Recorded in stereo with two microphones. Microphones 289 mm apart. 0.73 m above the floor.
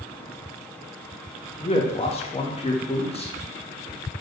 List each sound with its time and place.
1.6 s a man speaking: 20° left (ahead or behind), 0.6 m